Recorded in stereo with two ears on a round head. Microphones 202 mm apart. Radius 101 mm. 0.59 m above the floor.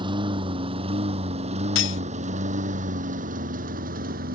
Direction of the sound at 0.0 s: 20° right (ahead or behind).